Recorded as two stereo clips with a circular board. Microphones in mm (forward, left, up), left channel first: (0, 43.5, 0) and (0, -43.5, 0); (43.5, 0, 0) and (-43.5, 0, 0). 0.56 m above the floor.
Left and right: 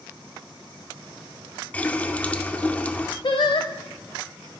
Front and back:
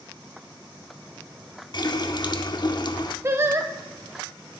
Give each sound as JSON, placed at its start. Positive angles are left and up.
{"t": 1.7, "sound": "a running tap", "azimuth_deg": 20, "distance_m": 0.7}
{"t": 3.2, "sound": "singing", "azimuth_deg": 120, "distance_m": 0.9}